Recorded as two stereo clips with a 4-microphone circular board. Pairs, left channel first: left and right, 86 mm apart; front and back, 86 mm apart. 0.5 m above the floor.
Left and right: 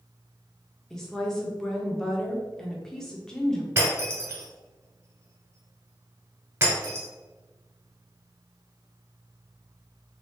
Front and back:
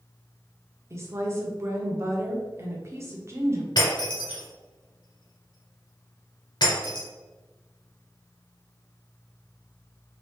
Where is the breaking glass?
30° right, 1.9 m.